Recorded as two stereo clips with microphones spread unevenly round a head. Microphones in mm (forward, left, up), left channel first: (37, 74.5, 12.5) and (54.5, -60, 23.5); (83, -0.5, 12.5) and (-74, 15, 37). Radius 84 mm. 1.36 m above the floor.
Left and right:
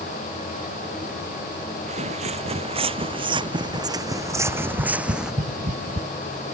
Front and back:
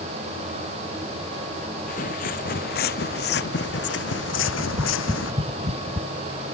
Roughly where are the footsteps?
Ahead right.